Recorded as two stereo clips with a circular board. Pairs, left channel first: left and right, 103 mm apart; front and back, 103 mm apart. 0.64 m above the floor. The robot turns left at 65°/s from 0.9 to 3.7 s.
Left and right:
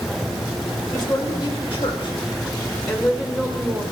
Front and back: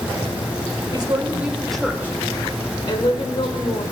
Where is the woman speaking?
145° left, 2 m; by 3.8 s 40° right, 2 m.